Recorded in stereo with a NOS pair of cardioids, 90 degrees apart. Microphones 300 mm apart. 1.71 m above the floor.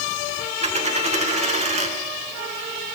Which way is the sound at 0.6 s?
20° right.